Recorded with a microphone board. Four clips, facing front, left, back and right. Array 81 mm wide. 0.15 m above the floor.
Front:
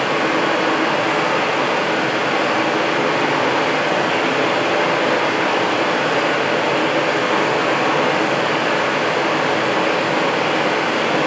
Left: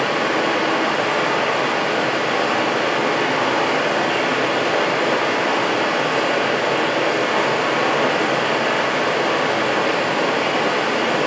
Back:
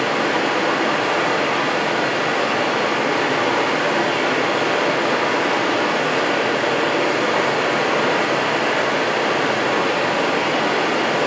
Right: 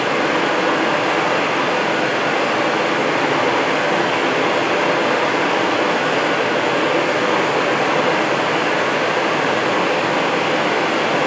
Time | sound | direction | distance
0.0 | running water | 70° right | 3.5 m